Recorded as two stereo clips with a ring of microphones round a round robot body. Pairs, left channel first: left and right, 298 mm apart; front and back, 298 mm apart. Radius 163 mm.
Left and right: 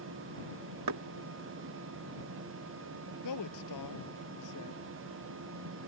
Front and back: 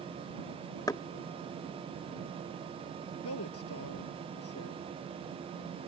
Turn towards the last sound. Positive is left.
turn(degrees=50)